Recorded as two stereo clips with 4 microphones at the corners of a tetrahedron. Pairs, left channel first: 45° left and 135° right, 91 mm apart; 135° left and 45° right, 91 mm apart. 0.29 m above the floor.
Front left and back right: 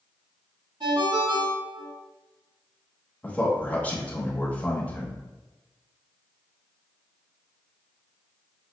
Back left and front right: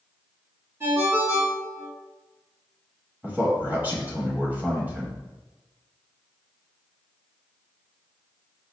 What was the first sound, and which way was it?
A ringtone, 110° right.